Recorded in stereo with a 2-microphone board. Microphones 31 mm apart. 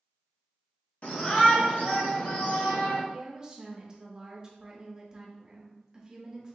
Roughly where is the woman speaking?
Right.